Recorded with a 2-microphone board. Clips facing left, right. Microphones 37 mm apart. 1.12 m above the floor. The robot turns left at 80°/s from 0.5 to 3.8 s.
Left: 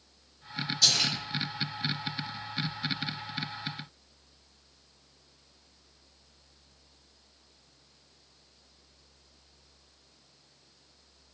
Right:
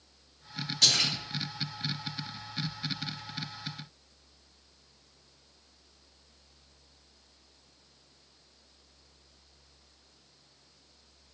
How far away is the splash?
About 2.0 m.